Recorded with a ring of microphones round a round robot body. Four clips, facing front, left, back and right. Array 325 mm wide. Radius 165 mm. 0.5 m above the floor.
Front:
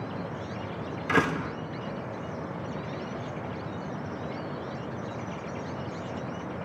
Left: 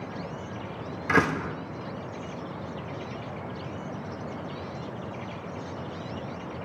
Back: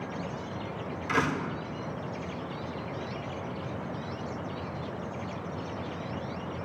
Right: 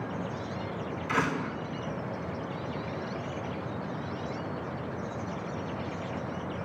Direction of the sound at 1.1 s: 60° left.